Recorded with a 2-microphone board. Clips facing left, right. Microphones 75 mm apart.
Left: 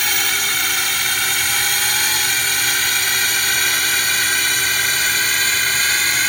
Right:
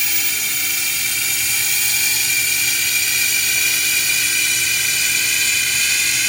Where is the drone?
60° left (ahead or behind); by 6.3 s 45° left (ahead or behind).